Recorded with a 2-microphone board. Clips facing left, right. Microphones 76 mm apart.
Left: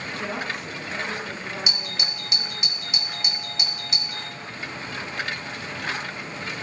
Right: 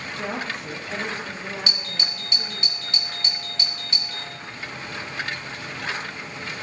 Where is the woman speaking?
70° right (ahead or behind), 5 m; by 2.7 s 50° right (ahead or behind), 5.5 m.